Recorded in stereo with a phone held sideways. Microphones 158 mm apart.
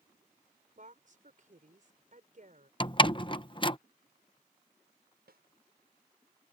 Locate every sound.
0.8 s a woman speaking: 55° right (ahead or behind)
2.8 s a door slam: 30° left (ahead or behind)
5.3 s a snare drum: 85° right